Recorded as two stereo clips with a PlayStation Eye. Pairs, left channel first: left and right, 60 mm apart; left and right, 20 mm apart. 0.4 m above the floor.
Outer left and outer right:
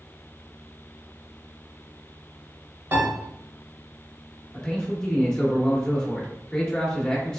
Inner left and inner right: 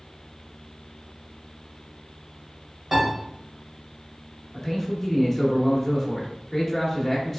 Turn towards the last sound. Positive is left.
turn(degrees=10)  # may be behind; listen again after turning